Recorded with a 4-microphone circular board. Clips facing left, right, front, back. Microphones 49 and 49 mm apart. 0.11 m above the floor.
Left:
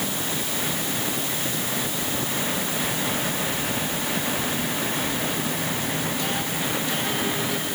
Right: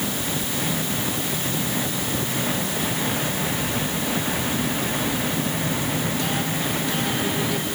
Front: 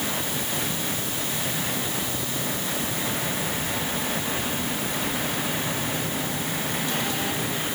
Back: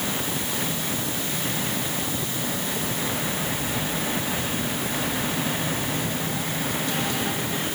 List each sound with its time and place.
Only background noise.